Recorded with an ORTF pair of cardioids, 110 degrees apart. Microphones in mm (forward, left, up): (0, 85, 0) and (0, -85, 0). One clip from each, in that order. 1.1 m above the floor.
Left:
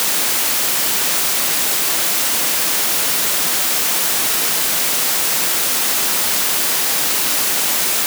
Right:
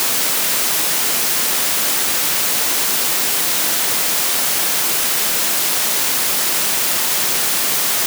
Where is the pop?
No pop in this recording.